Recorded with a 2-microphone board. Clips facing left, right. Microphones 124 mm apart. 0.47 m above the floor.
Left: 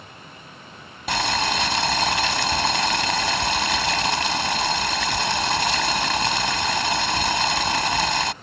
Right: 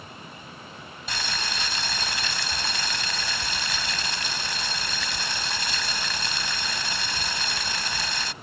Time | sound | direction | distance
1.1 | boiling | 65° left (ahead or behind) | ?